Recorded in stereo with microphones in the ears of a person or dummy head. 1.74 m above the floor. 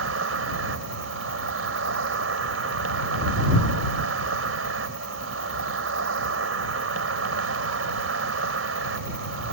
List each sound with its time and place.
0.0 s an insect: 80° right